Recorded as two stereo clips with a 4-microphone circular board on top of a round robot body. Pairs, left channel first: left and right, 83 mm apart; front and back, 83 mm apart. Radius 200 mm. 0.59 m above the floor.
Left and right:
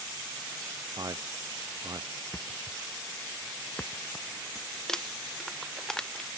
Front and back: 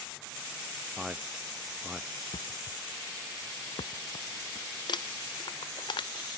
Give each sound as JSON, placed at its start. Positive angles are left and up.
{"t": 1.0, "sound": "a man speaking", "azimuth_deg": -100}
{"t": 2.3, "sound": "a thud", "azimuth_deg": 20}
{"t": 4.9, "sound": "crumpling", "azimuth_deg": 10}